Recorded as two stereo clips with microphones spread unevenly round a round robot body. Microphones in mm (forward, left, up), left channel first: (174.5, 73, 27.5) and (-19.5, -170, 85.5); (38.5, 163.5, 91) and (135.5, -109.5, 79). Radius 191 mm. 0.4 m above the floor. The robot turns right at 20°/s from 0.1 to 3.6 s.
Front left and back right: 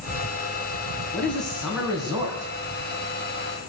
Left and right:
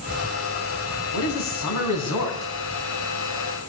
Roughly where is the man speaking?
Behind left.